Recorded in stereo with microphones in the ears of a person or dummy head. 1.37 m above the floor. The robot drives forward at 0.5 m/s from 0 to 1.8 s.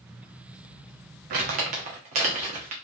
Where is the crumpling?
45° right (ahead or behind), 1.1 m; by 2.7 s 40° right (ahead or behind), 1.2 m.